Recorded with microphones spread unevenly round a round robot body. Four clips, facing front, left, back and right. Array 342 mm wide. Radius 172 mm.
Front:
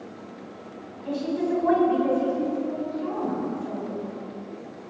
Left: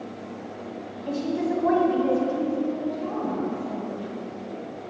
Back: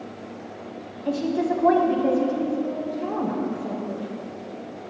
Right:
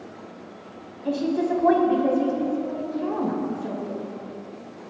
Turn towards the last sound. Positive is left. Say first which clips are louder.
# right 3 dB, back 2 dB
turn(degrees=-135)